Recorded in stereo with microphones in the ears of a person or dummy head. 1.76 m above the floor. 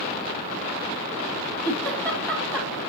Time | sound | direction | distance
1.6 | a giggle | 5° left (ahead or behind) | 2.5 m